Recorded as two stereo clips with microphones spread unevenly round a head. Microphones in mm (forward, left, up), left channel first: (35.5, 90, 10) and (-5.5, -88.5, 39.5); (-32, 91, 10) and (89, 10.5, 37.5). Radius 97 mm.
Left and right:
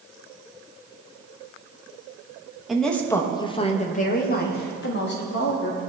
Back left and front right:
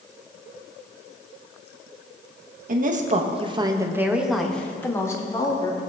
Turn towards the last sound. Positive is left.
turn(degrees=90)